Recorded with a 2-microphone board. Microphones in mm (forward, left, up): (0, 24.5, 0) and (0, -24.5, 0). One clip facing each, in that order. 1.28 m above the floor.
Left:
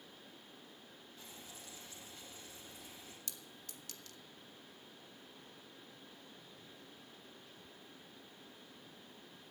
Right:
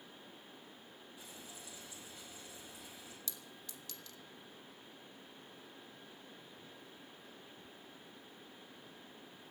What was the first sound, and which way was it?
Frying, 10° right (ahead or behind).